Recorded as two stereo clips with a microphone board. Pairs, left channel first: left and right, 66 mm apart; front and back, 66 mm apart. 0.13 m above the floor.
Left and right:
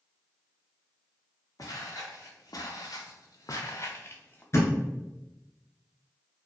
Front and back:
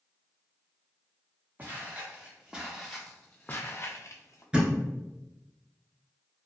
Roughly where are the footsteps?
Behind left.